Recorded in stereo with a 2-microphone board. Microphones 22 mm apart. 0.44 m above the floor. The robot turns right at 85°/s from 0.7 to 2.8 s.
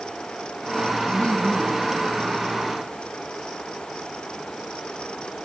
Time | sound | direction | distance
1.1 | laughter | 55° left | 8.5 m